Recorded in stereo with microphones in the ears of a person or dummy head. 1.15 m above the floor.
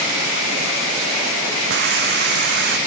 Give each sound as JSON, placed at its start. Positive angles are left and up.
{"t": 1.7, "sound": "a hiss", "side_deg": -55}